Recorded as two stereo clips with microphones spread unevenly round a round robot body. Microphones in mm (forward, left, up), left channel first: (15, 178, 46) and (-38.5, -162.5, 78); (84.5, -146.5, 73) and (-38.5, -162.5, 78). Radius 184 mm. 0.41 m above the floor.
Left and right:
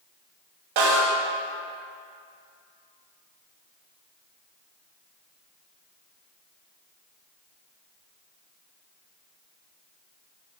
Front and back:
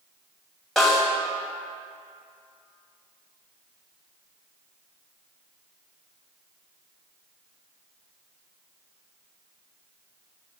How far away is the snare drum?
About 2 m.